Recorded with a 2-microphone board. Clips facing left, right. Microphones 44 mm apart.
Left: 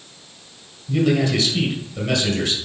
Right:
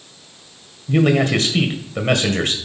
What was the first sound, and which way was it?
A man speaking, 50° right (ahead or behind).